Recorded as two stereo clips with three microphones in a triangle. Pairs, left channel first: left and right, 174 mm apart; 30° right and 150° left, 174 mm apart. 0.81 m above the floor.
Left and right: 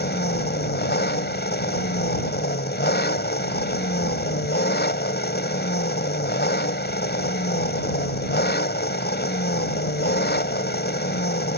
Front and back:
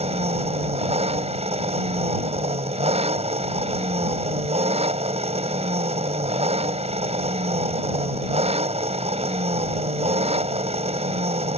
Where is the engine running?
100° left.